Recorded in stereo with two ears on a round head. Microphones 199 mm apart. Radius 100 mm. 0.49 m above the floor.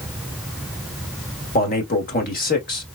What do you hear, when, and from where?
1.6 s a man speaking: 40° left (ahead or behind), 1.6 m